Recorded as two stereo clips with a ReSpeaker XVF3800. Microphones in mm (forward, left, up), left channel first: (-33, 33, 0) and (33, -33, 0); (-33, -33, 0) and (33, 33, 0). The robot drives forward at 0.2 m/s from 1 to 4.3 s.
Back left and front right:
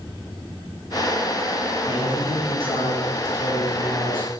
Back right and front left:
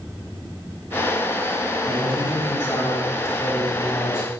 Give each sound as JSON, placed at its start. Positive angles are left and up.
{"t": 1.9, "sound": "a man speaking", "azimuth_deg": 160, "distance_m": 4.5}